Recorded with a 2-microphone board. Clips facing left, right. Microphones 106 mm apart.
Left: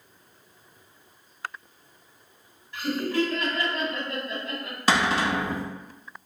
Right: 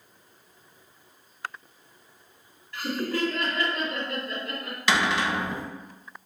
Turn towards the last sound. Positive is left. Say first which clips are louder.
# left 2 dB
turn(degrees=40)  # may be behind; listen again after turning